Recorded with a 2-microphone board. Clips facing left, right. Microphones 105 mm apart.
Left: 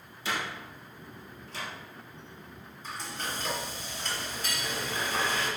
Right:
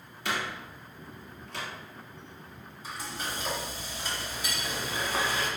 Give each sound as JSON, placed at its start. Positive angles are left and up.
{"t": 0.2, "sound": "a door slam", "side_deg": -60, "distance_m": 2.5}
{"t": 2.8, "sound": "frying", "side_deg": -10, "distance_m": 1.9}